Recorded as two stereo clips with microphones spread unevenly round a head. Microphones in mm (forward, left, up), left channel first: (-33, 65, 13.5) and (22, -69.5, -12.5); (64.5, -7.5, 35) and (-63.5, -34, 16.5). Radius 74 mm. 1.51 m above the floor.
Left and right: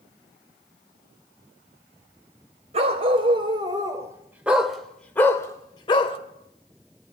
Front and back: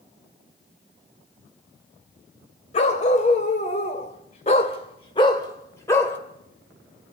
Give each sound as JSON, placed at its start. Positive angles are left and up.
{"t": 2.7, "sound": "a dog barking", "azimuth_deg": -15, "distance_m": 2.0}